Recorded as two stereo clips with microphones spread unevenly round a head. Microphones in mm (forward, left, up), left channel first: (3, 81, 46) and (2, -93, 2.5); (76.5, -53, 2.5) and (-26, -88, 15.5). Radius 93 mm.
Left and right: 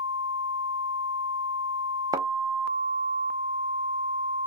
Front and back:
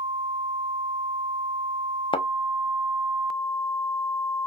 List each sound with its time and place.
2.1 s a thud: 10° right, 0.7 m